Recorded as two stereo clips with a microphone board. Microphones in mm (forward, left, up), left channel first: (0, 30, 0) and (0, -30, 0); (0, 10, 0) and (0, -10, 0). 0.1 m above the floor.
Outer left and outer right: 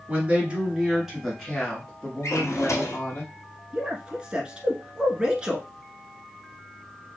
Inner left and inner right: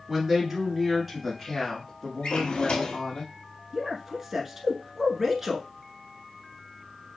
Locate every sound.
0.1 s a woman speaking: 25° right (ahead or behind), 1.7 m; by 3.2 s 35° left (ahead or behind), 2 m
2.2 s a drawer: 60° left (ahead or behind), 1.5 m
3.7 s a man speaking: 15° right (ahead or behind), 1.1 m